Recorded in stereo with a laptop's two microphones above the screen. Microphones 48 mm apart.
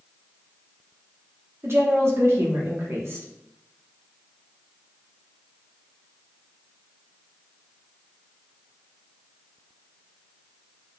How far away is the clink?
I don't hear a clink.